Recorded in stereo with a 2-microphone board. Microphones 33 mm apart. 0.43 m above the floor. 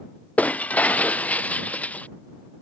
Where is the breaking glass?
55° left (ahead or behind).